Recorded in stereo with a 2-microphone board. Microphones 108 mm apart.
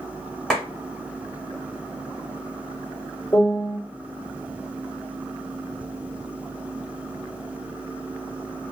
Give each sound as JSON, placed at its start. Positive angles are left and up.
{"t": 0.5, "sound": "a clap", "side_deg": 0, "distance_m": 1.3}
{"t": 3.3, "sound": "a piano", "side_deg": 40, "distance_m": 1.7}